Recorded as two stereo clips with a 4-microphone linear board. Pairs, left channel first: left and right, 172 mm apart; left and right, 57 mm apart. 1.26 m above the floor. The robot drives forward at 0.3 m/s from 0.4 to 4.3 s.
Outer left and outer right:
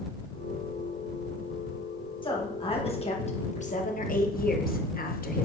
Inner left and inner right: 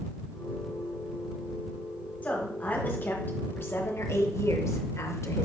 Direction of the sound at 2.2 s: 30° left (ahead or behind).